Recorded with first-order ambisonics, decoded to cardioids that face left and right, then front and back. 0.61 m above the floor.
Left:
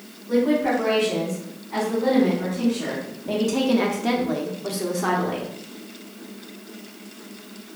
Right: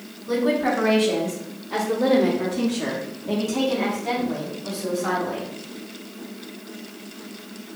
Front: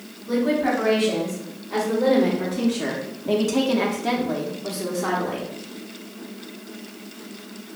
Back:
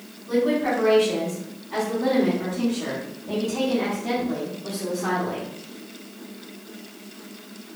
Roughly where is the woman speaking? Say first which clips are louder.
Left 1 dB, even; right.